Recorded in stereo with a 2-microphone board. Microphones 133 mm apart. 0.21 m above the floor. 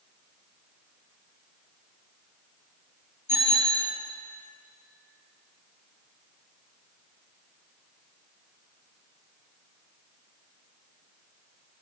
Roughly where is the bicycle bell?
Left.